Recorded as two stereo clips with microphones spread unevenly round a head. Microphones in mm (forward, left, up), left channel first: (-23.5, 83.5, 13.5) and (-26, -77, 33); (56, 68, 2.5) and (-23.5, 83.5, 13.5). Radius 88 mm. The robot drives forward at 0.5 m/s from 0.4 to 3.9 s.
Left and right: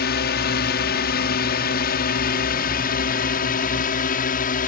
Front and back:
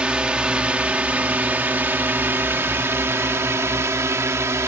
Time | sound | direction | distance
0.0 | a drone | 90° left | ?